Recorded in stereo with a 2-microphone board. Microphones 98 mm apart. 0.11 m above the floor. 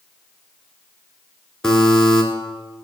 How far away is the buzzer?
About 1.4 m.